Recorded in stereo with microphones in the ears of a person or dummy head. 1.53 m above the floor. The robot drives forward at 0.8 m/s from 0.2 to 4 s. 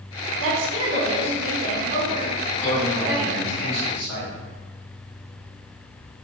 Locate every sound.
0.4 s a woman speaking: 70° right (ahead or behind), 1.2 m; by 3.5 s 25° right (ahead or behind), 2.5 m
2.5 s a man speaking: 15° left (ahead or behind), 1.5 m; by 4.3 s 5° left (ahead or behind), 2.5 m